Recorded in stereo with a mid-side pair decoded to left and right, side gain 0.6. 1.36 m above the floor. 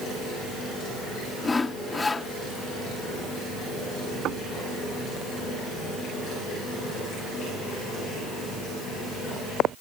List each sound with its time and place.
1.4 s sawing: 20° left
4.2 s knocking: 55° right